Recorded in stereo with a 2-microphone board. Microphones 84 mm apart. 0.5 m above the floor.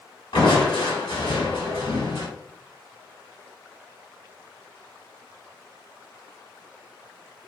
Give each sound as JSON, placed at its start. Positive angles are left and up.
{"t": 0.3, "sound": "crushing", "side_deg": 80, "distance_m": 1.7}